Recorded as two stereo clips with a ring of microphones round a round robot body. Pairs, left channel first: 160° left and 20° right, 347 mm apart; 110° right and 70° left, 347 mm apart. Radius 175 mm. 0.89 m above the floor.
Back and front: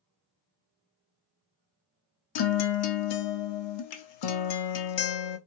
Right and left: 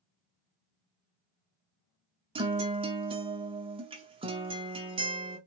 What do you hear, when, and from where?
2.4 s a guitar: 140° left, 0.6 m